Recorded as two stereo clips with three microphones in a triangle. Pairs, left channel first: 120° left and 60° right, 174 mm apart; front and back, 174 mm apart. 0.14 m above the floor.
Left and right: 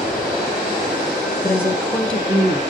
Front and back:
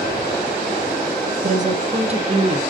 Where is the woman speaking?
165° right, 1.7 m; by 2.6 s 145° right, 1.4 m.